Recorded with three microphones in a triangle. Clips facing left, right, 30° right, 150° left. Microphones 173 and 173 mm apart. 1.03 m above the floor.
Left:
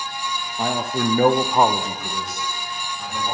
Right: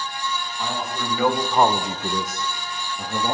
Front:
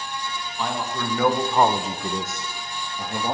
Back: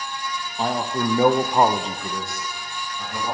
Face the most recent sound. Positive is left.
turn(degrees=-85)